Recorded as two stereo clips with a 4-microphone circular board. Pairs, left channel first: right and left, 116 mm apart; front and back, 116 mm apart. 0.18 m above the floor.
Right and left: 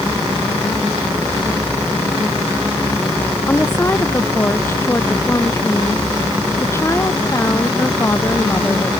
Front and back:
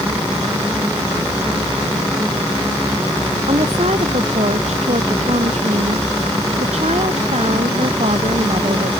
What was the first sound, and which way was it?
A woman speaking, 160° right.